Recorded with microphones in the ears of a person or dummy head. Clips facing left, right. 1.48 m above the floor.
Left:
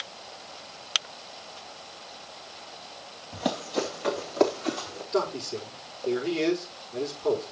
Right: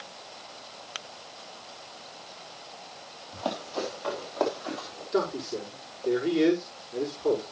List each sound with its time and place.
3.3 s running footsteps: 25° left (ahead or behind), 3.5 m; by 5.0 s 45° left (ahead or behind), 3.5 m
5.1 s a man speaking: 10° right (ahead or behind), 6 m